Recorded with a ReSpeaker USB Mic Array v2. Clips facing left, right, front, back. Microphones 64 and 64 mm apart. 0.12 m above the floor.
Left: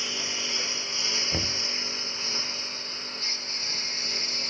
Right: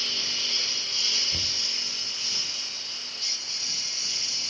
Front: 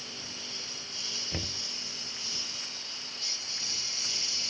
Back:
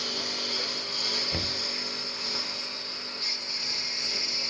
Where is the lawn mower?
165° left; by 4.5 s 140° left.